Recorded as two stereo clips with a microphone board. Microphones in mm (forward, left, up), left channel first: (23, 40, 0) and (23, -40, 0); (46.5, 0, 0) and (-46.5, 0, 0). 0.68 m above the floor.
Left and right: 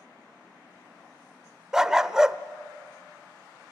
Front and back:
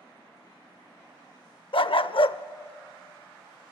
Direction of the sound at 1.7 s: 10° right.